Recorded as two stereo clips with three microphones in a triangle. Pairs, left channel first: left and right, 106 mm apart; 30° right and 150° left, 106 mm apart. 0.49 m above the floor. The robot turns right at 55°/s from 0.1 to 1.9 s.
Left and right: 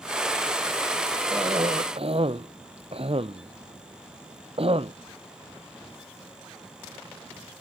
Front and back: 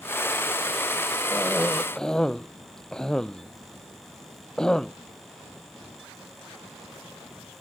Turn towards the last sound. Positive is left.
turn(degrees=-115)